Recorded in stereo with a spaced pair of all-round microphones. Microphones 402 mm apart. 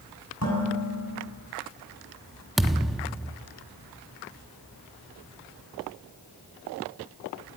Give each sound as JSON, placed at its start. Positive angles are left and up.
{"t": 0.4, "sound": "dishes clattering", "side_deg": 40, "distance_m": 8.0}
{"t": 2.6, "sound": "a thud", "side_deg": 0, "distance_m": 0.9}